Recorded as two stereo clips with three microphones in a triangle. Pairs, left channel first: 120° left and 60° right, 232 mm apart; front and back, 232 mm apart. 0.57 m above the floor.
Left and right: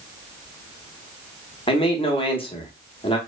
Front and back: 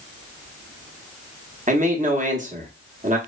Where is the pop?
I don't hear a pop.